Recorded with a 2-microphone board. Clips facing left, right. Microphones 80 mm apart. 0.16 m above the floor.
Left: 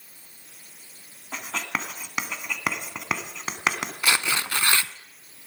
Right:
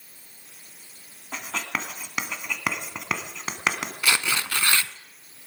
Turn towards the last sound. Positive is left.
turn(degrees=20)  # may be behind; listen again after turning